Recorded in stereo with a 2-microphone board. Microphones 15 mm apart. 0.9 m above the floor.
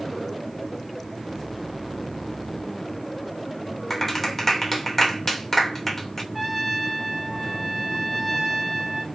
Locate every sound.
3.9 s a clap: 15° left (ahead or behind), 2.5 m
6.3 s a trumpet: 10° right (ahead or behind), 2 m